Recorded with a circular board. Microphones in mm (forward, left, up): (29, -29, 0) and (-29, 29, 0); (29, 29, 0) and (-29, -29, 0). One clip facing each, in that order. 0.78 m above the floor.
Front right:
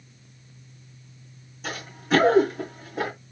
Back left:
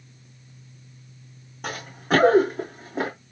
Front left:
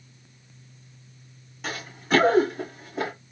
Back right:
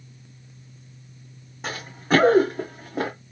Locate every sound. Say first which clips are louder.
1.6 s running footsteps: back left 2 dB, back right 4 dB; 165° left, 3 m; by 3.1 s 165° right, 3 m